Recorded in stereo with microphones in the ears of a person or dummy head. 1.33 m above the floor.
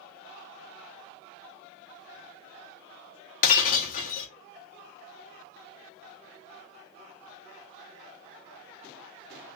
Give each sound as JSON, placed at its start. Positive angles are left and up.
{"t": 3.4, "sound": "breaking glass", "side_deg": 40, "distance_m": 1.0}